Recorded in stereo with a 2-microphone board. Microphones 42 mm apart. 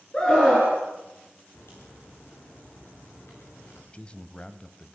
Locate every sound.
0.1 s a scream: 20° left (ahead or behind), 4 m
1.5 s a crack: 60° left (ahead or behind), 9.5 m
3.9 s a man speaking: 20° left (ahead or behind), 1.5 m